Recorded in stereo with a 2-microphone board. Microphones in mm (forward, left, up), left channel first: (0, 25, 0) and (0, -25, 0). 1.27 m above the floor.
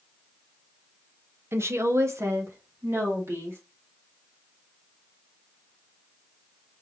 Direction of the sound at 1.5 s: 55° right (ahead or behind).